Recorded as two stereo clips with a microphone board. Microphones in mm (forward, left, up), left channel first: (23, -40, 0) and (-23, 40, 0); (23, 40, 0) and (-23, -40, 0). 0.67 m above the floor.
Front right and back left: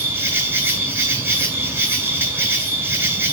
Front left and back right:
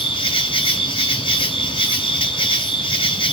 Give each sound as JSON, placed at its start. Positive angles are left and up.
{"t": 0.0, "sound": "an insect", "azimuth_deg": 55, "distance_m": 3.0}